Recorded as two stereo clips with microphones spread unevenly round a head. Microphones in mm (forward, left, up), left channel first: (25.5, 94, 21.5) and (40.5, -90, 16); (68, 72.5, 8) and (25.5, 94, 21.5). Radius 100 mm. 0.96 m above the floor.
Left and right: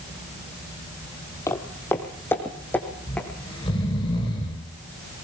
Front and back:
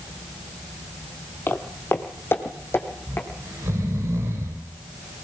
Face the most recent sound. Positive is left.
turn(degrees=165)